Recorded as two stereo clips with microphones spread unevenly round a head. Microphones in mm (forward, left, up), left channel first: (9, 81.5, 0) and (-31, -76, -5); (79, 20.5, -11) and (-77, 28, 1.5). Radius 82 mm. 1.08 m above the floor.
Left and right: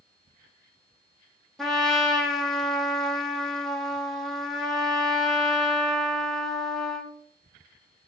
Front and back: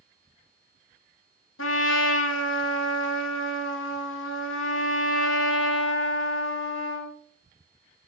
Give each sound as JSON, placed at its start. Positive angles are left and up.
{"t": 1.6, "sound": "a trumpet", "azimuth_deg": -15, "distance_m": 1.0}